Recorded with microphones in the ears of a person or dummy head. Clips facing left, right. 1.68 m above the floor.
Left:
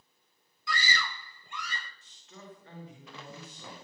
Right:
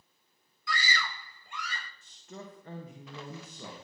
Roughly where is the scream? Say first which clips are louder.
Even; left.